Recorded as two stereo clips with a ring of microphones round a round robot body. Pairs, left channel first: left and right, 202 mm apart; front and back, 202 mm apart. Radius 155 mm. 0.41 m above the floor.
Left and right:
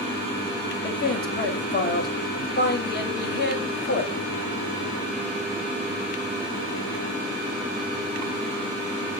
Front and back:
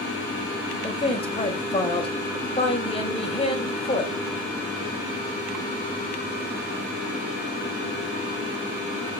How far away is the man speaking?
About 3 m.